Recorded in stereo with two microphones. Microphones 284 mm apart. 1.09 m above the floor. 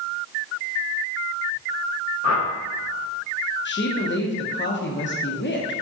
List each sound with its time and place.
2.2 s a whoosh: 60° left (ahead or behind), 0.6 m
3.6 s a woman speaking: 40° left (ahead or behind), 0.6 m